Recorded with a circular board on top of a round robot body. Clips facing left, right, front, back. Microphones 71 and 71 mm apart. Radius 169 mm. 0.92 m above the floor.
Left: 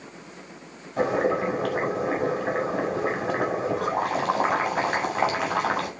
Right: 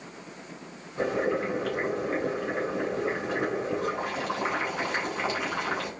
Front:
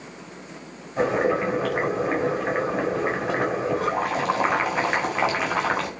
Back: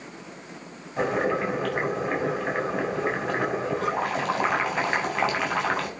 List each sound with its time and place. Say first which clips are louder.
1.0 s boiling: left 4 dB, front 3 dB; 80° left, 7 m